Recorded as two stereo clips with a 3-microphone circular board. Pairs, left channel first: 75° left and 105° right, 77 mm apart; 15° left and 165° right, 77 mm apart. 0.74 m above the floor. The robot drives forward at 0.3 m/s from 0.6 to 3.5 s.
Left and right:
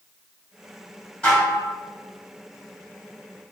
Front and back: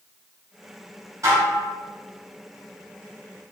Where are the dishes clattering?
150° left, 1.6 m.